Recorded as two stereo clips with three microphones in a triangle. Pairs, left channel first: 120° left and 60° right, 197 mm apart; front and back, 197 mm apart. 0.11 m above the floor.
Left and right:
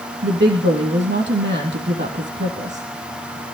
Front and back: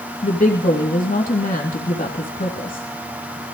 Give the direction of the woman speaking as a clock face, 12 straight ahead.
1 o'clock.